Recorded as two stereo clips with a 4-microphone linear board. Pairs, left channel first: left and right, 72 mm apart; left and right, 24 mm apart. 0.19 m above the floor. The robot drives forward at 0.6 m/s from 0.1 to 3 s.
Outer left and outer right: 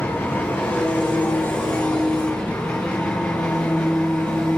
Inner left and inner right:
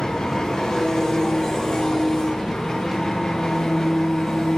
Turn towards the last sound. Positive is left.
turn(degrees=20)  # may be behind; listen again after turning